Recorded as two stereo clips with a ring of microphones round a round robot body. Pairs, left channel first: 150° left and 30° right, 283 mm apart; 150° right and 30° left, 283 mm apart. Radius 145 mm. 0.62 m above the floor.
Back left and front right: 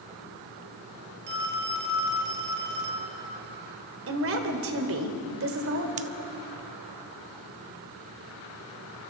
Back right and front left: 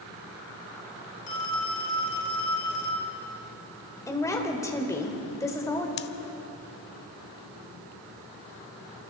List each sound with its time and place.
1.3 s a phone ringing: 85° right, 2 m
4.1 s a woman speaking: 70° right, 2.5 m
6.0 s scissors: 95° right, 0.6 m